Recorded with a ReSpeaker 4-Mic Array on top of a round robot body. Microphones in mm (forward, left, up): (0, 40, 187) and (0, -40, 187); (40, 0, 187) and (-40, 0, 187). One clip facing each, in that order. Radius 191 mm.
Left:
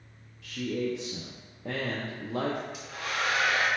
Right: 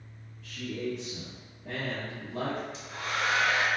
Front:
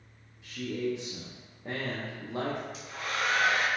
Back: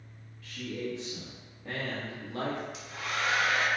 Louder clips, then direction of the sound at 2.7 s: Even, front 1 dB; 40° right.